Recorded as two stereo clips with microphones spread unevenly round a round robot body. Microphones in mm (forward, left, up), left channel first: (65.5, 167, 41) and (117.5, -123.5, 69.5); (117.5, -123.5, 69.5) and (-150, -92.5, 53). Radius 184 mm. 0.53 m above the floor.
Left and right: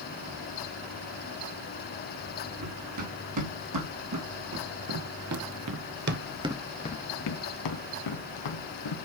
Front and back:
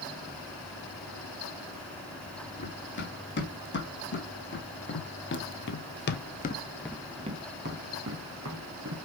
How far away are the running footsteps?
About 3 m.